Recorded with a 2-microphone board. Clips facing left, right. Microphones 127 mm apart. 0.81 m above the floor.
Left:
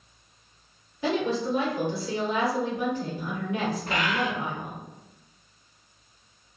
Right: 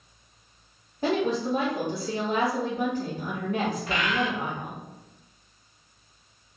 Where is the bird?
40° left (ahead or behind), 0.7 m.